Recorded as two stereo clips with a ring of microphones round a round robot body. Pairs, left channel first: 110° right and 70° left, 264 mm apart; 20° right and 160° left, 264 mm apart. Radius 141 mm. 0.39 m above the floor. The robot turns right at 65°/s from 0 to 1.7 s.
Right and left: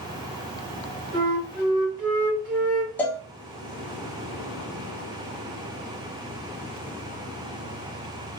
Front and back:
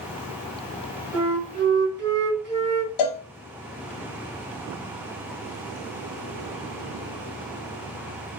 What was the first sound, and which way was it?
A flute, 85° left.